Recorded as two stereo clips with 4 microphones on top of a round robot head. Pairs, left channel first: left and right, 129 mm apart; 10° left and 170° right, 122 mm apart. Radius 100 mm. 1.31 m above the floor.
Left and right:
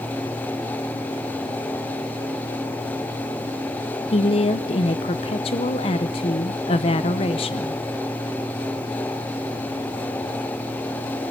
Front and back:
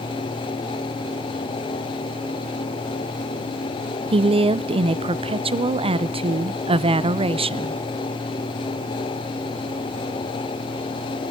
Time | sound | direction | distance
4.1 | a woman speaking | 145° left | 0.6 m